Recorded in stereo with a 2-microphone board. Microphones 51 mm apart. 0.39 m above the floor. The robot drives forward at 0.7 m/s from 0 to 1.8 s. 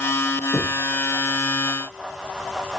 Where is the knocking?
70° left (ahead or behind), 2.5 m; by 0.9 s 75° left (ahead or behind), 2.5 m.